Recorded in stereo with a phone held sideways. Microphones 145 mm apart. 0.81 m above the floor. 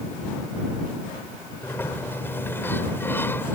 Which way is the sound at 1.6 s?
15° left (ahead or behind).